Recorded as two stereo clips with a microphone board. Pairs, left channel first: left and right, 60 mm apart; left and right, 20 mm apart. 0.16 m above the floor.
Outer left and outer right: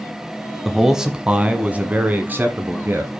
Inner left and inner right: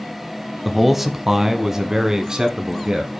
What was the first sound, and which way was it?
A man speaking, 5° right (ahead or behind).